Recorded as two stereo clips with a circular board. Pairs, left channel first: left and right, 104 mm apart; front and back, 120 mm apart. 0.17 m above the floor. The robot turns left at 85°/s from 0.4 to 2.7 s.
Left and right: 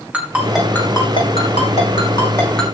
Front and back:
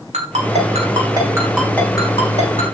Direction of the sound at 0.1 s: 165° right.